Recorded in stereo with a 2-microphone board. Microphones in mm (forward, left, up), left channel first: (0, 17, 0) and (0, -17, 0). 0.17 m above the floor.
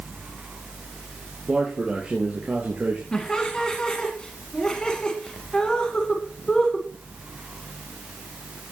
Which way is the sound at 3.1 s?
25° left (ahead or behind).